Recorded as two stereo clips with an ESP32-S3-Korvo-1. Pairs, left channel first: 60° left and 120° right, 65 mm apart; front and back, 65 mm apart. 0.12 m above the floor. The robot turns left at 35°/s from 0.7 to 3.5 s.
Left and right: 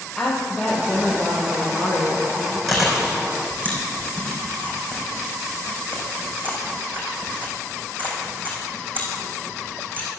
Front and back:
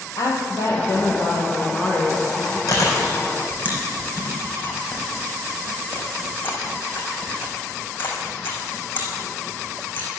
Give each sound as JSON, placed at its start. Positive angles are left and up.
{"t": 0.2, "sound": "a woman speaking", "azimuth_deg": -25, "distance_m": 3.5}
{"t": 2.7, "sound": "chewing", "azimuth_deg": -30, "distance_m": 4.5}